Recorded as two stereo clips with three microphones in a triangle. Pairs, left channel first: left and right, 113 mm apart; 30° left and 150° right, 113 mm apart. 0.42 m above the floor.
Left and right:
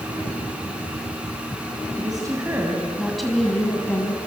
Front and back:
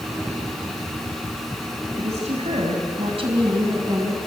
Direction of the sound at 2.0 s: 140° right.